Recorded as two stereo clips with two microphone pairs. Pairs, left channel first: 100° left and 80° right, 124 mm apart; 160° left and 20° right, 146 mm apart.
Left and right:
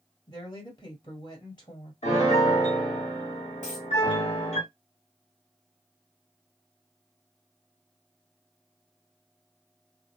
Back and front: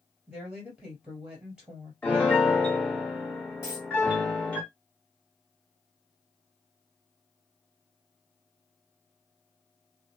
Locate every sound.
0.3 s a woman speaking: 60° left, 2.0 m
2.0 s a piano: 80° left, 1.5 m
3.6 s a dropped coin: 95° left, 1.8 m